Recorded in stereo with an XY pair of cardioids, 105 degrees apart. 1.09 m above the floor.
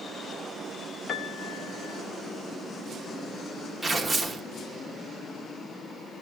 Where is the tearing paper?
10° right, 1.2 m.